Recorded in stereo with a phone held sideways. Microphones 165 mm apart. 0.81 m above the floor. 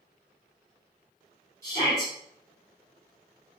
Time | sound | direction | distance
1.6 | a shout | 20° left (ahead or behind) | 2.5 m